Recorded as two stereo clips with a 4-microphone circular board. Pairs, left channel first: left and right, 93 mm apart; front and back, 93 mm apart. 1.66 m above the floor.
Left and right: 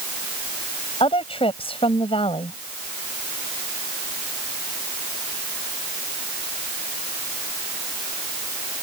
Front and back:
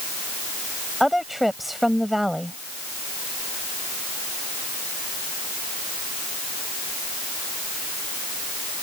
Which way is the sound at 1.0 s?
90° left.